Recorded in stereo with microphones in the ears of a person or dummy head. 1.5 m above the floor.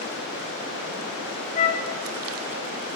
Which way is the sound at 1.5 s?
35° left (ahead or behind).